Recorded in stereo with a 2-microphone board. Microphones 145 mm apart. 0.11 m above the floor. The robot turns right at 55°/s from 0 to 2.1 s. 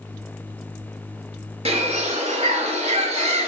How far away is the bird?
About 0.8 m.